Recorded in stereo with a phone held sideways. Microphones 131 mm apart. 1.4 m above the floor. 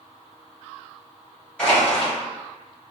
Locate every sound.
1.6 s crushing: 10° left (ahead or behind), 1.6 m